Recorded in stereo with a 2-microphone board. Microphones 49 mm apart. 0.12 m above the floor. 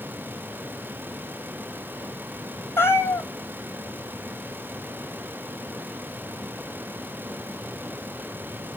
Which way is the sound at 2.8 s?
55° left (ahead or behind).